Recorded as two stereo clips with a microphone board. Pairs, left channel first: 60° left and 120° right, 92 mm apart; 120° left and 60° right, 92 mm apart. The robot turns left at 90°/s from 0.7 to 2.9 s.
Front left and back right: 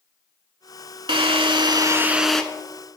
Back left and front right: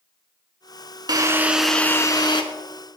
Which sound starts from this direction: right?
A drill, at 1.1 s.